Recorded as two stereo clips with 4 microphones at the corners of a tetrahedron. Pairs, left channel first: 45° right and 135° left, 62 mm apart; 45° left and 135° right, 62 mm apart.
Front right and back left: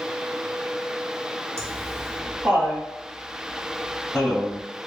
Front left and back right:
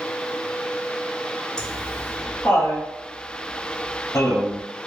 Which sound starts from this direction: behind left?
Laughter, at 1.6 s.